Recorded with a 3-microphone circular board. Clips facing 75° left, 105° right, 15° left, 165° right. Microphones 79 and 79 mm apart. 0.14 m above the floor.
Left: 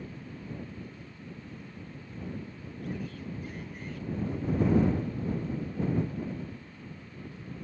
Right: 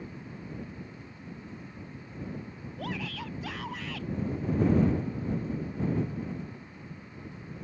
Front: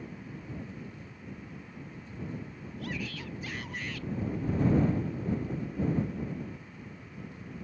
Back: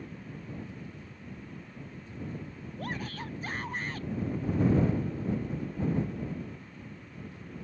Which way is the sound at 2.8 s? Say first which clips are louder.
Right 2 dB, back 1 dB; 115° right.